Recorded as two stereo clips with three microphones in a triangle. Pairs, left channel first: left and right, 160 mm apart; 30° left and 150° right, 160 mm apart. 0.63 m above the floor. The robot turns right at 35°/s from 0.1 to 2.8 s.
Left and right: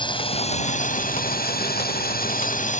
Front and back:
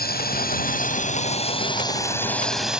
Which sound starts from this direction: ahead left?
A drone, at 0.0 s.